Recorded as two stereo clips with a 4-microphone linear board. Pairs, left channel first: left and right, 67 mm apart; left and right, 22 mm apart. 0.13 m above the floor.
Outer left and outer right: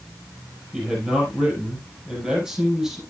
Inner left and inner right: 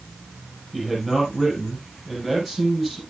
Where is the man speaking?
10° right (ahead or behind), 5 m.